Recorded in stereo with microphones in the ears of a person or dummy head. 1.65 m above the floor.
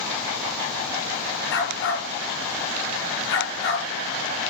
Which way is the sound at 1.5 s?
70° left (ahead or behind).